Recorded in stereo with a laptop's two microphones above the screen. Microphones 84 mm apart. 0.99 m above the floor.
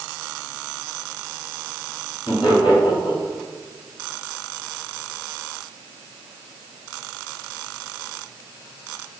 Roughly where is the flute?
No flute in this recording.